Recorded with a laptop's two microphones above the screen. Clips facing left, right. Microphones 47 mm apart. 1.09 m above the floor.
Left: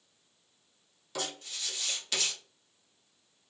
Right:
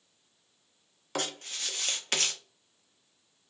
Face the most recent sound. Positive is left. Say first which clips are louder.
# right 3 dB
turn(degrees=-50)  # may be behind; listen again after turning